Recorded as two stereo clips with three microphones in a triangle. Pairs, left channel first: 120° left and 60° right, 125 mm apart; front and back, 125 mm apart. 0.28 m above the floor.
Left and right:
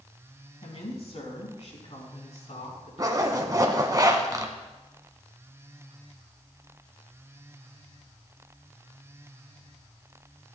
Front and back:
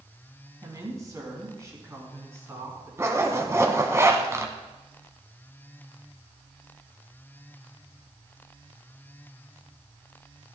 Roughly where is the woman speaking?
Behind left.